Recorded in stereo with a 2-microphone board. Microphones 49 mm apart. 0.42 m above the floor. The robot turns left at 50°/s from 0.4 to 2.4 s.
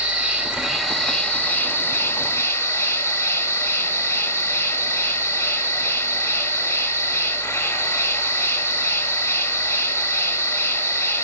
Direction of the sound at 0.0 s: 160° right.